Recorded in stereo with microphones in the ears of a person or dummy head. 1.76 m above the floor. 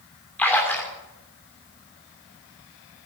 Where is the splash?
5° left (ahead or behind), 3 m.